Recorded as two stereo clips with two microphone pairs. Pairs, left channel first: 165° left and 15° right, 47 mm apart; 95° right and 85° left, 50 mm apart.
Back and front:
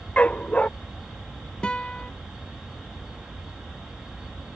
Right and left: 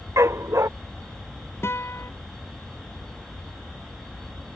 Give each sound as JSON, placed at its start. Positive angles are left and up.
{"t": 0.2, "sound": "a dog barking", "azimuth_deg": 100}
{"t": 1.6, "sound": "a guitar", "azimuth_deg": -130}